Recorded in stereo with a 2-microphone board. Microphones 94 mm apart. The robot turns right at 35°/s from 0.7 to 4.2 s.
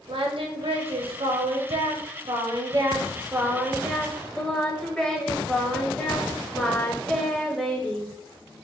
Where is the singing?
115° right, 0.6 m; by 8.1 s 10° left, 0.6 m.